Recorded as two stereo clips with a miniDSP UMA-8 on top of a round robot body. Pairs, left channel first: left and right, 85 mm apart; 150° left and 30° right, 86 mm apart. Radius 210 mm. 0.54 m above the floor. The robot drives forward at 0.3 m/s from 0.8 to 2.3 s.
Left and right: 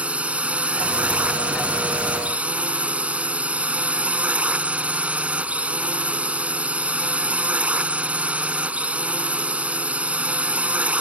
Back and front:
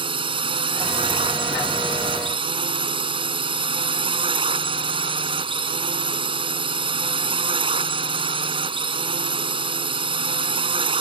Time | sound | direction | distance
0.0 | a drone | 15° right | ?